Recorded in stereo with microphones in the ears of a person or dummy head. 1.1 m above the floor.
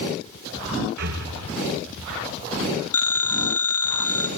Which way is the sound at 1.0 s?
60° right (ahead or behind).